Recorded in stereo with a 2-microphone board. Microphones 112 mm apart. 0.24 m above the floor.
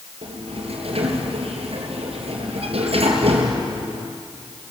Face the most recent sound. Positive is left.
turn(degrees=-65)  # may be behind; listen again after turning